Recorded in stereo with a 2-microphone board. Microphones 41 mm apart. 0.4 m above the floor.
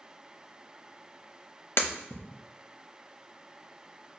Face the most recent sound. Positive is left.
turn(degrees=70)  # may be behind; listen again after turning